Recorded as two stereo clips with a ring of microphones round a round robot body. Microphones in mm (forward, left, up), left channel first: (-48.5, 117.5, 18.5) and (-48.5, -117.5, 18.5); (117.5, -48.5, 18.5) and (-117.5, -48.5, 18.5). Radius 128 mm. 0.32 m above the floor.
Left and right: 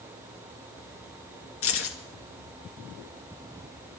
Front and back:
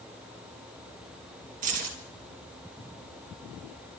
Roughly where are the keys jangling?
Behind left.